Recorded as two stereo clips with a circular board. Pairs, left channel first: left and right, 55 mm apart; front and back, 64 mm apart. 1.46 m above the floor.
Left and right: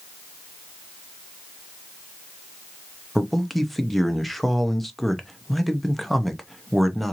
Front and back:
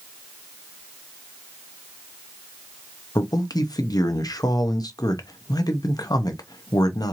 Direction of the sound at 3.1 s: Straight ahead.